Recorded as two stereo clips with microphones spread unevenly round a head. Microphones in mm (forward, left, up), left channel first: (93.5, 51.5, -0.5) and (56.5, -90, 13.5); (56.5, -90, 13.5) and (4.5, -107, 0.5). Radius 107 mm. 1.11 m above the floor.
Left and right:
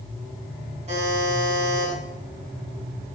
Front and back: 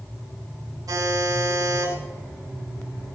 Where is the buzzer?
165° right, 7.5 m.